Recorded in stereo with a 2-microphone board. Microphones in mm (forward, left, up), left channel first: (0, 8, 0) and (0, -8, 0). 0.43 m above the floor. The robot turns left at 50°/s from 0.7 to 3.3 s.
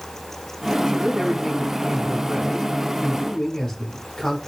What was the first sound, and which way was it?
A man speaking, 150° right.